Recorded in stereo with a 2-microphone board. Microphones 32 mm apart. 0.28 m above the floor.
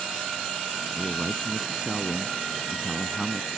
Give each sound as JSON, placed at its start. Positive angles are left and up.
{"t": 0.9, "sound": "a man speaking", "side_deg": -15}